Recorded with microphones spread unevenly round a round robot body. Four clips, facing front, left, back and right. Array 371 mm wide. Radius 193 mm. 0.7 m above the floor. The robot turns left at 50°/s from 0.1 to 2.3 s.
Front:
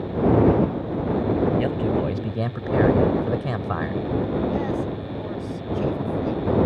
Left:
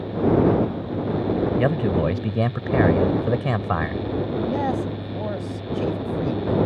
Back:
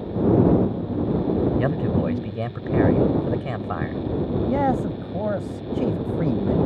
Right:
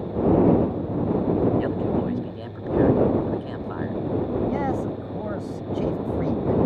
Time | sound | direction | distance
1.6 | a man speaking | 115° left | ?
4.5 | a man speaking | 175° left | ?